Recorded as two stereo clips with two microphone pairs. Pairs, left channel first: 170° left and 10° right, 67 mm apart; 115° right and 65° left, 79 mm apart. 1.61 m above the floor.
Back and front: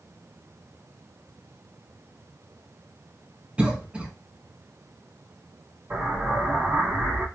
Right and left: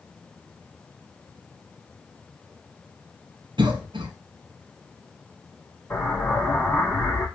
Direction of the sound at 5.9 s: 60° right.